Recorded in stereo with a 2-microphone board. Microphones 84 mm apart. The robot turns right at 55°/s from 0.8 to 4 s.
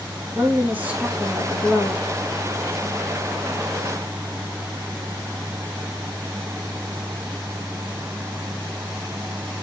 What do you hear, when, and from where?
0.3 s a woman speaking: 20° right, 2.5 m; by 2.0 s 50° left, 2.5 m